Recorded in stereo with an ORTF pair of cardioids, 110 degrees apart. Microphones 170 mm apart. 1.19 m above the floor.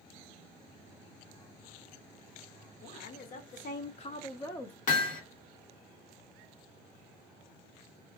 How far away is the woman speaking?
About 1.3 m.